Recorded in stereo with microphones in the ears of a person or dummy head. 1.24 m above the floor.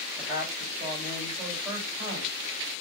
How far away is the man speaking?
About 2.5 m.